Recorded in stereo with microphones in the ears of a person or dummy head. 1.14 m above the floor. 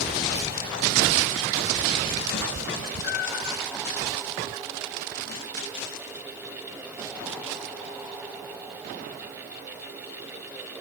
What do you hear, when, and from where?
2.3 s a cat meowing: 75° left (ahead or behind), 2.5 m; by 3.6 s 70° left (ahead or behind), 3 m